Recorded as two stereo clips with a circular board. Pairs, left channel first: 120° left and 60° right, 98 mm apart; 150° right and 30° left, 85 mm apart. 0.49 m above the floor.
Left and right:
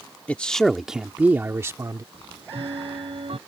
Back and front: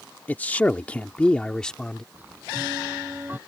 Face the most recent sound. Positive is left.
turn(degrees=-40)